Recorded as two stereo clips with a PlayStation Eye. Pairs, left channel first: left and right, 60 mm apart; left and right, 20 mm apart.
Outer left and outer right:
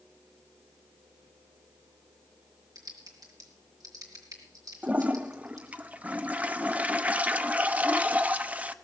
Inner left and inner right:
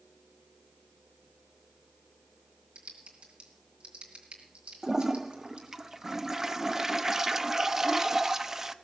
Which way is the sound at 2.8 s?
85° right.